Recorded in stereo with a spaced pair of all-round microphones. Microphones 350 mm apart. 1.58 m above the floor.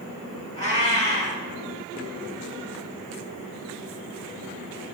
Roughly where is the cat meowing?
Centre.